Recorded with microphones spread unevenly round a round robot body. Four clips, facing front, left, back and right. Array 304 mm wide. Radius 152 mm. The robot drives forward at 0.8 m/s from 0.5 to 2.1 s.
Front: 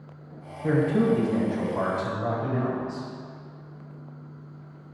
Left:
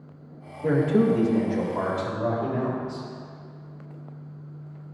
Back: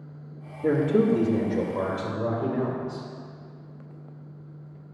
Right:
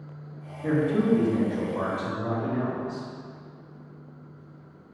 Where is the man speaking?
170° left, 1.6 m; by 3.1 s 175° left, 3 m.